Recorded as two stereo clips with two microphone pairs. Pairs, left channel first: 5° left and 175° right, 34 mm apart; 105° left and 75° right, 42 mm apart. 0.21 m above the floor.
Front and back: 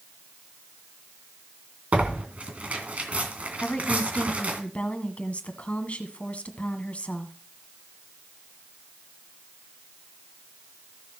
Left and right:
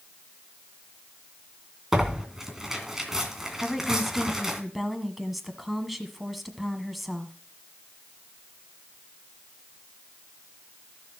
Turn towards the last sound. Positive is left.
turn(degrees=10)